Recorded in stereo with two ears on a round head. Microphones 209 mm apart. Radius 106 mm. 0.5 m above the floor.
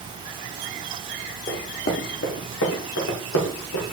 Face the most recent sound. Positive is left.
turn(degrees=70)  # may be behind; listen again after turning